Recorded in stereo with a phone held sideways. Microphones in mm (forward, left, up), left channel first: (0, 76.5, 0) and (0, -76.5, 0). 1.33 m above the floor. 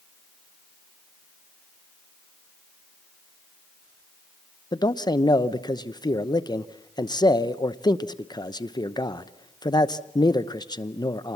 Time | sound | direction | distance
4.7 | a man speaking | 30° left (ahead or behind) | 0.8 m